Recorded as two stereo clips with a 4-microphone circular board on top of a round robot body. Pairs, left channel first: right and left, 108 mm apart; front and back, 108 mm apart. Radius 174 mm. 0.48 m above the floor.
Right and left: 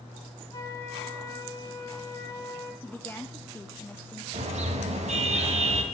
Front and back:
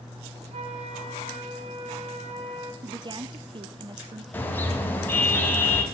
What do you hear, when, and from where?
0.5 s a flute: 150° right, 1.4 m
2.8 s a woman speaking: 155° right, 1.0 m
4.3 s a car horn: 75° left, 2 m